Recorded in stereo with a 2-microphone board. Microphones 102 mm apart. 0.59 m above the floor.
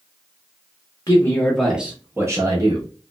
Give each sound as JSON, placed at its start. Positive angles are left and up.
{"t": 1.1, "sound": "a man speaking", "side_deg": 30, "distance_m": 0.7}